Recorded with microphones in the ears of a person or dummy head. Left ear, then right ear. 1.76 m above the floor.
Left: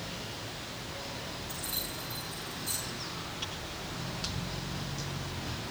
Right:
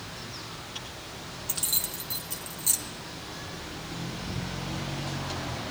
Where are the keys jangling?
30° right (ahead or behind), 1.1 m.